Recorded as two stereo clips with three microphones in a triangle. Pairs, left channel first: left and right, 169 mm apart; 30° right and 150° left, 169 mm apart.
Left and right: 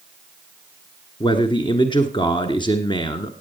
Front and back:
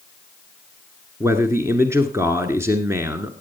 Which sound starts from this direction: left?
A man speaking, at 1.2 s.